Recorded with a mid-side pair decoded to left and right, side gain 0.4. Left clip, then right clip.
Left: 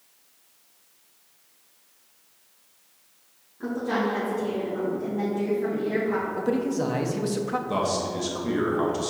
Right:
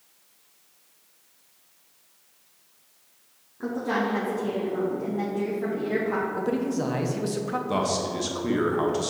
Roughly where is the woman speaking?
Ahead right.